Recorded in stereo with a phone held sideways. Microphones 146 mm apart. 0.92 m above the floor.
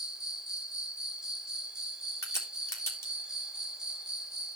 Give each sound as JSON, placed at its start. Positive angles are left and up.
{"t": 0.0, "sound": "an insect", "side_deg": -5, "distance_m": 1.0}
{"t": 2.2, "sound": "a crack", "side_deg": 20, "distance_m": 1.8}